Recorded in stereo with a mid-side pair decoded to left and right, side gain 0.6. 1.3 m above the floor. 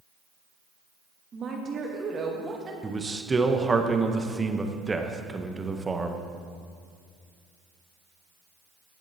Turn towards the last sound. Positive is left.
turn(degrees=-20)